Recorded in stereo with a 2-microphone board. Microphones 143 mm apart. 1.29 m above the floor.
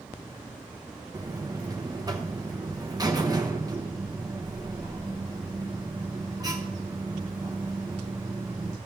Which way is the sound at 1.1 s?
25° right (ahead or behind).